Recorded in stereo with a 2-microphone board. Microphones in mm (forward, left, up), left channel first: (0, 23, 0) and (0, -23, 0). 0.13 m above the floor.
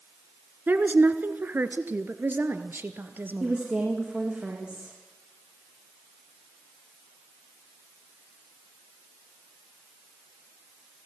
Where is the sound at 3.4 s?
20° right (ahead or behind), 7 m.